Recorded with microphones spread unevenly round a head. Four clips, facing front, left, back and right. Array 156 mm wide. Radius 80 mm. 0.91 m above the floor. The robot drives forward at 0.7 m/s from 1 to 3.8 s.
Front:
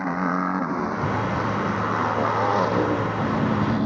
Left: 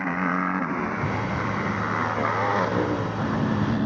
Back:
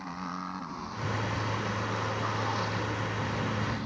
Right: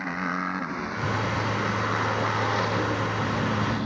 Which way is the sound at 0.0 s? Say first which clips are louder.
Left 4 dB, front 13 dB; 20° left.